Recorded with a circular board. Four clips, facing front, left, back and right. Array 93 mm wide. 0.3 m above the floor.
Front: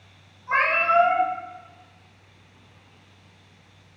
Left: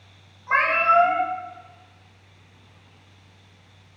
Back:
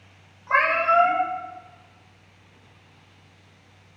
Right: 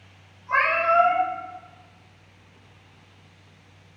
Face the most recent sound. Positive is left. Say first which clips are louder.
# left 1 dB, back 1 dB
turn(degrees=135)